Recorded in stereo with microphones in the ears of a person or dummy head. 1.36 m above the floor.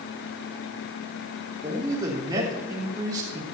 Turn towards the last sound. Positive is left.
turn(degrees=-20)  # may be behind; listen again after turning